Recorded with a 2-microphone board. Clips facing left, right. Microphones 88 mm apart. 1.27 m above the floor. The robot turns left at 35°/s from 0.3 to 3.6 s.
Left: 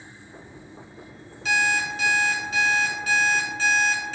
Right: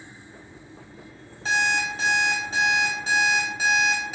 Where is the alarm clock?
80° right, 0.7 m; by 4.2 s 155° right, 0.7 m.